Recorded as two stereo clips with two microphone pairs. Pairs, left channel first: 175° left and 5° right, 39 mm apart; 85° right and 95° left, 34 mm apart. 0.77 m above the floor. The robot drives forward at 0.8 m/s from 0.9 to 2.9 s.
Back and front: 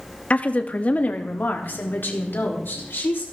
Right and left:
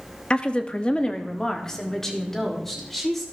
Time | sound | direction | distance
0.3 | a woman speaking | 140° right | 0.9 m